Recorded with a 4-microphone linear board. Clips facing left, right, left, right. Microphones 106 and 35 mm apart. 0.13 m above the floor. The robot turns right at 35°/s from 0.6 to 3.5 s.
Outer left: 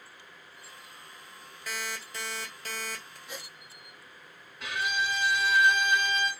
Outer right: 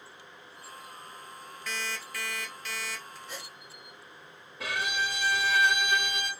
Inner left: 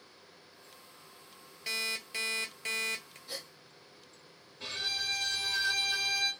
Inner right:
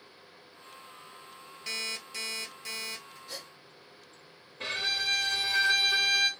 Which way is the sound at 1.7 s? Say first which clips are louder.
Even, inner left 1 dB; 10° left.